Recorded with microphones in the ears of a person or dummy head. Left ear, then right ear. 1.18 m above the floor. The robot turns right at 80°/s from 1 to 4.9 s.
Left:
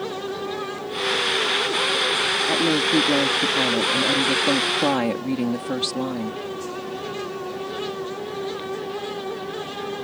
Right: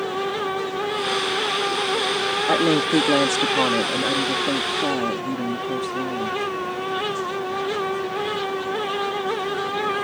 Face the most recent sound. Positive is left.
turn(degrees=60)